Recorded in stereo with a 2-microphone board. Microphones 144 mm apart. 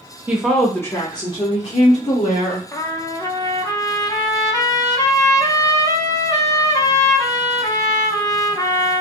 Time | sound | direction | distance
0.3 | a woman speaking | 10° right (ahead or behind) | 0.7 m
2.7 | a trumpet | 25° left (ahead or behind) | 0.5 m